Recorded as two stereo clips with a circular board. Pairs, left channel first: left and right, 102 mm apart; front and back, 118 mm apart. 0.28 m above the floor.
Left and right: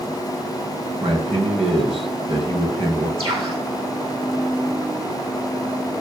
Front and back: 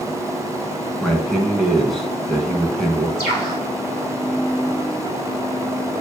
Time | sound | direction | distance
1.0 | a man speaking | 85° right | 3 m
3.2 | a bird | 60° right | 6.5 m